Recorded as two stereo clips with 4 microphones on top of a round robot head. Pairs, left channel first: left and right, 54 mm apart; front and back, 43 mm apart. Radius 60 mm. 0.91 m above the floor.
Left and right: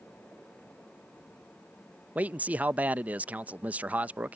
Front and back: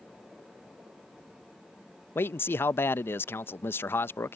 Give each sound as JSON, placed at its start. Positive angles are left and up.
{"t": 2.1, "sound": "a man speaking", "azimuth_deg": -30}